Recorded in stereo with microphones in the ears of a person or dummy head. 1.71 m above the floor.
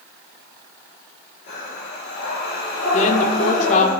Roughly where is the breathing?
Left.